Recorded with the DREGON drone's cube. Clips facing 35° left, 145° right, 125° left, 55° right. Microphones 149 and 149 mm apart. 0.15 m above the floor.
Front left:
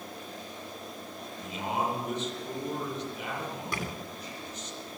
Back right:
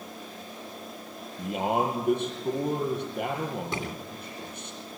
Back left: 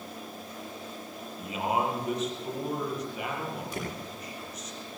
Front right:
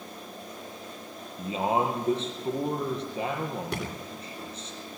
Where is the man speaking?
115° right, 5.5 m.